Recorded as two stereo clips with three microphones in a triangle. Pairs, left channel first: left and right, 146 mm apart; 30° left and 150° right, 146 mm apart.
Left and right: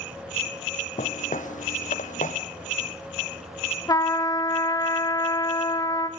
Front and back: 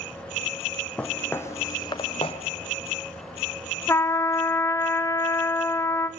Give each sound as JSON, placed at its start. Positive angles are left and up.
{"t": 1.0, "sound": "footsteps", "azimuth_deg": 110, "distance_m": 1.7}
{"t": 3.9, "sound": "a trumpet", "azimuth_deg": 75, "distance_m": 1.0}